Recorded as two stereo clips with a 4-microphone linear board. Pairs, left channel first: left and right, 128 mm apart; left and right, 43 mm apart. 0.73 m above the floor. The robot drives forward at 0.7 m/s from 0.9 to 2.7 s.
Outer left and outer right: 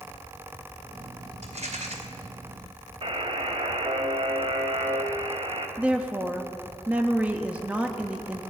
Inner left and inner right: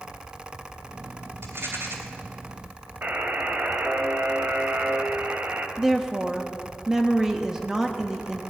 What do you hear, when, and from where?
1.4 s a rattle: 70° right (ahead or behind), 3 m; by 1.9 s 65° right (ahead or behind), 3 m
3.0 s a buzzer: 45° right (ahead or behind), 1.5 m
5.8 s a woman speaking: 10° right (ahead or behind), 0.9 m